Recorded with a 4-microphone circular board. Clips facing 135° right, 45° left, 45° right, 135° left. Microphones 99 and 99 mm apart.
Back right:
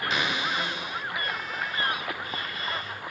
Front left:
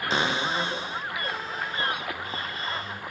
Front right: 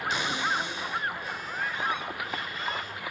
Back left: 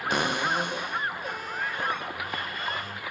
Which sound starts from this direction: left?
A cupboard door, at 0.1 s.